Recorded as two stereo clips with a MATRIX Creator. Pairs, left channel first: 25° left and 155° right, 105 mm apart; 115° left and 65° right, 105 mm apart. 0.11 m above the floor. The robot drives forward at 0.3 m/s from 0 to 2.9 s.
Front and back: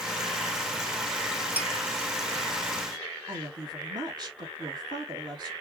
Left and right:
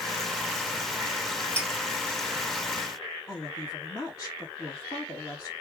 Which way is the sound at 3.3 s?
165° left.